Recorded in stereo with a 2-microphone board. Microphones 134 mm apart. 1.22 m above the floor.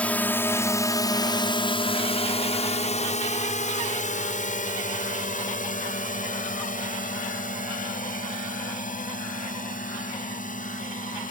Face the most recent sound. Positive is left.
turn(degrees=80)